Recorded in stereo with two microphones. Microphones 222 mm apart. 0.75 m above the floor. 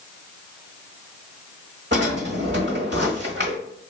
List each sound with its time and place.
1.9 s a drawer: 55° right (ahead or behind), 1.1 m